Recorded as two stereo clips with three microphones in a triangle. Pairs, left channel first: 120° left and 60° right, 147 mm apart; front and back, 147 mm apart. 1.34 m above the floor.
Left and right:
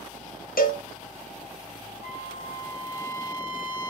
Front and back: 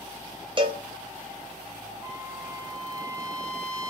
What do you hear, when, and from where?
0.6 s a cowbell: 125° left, 0.7 m
2.0 s a trumpet: 110° left, 0.9 m